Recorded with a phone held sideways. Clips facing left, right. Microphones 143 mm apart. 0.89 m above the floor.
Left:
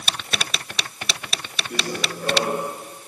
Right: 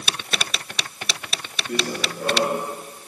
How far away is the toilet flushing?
No toilet flushing in this recording.